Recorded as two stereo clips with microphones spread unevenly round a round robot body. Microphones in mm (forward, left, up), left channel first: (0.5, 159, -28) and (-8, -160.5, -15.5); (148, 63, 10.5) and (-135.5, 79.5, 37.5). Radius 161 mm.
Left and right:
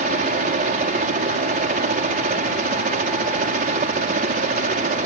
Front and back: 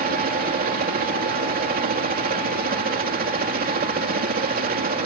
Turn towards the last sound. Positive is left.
turn(degrees=-140)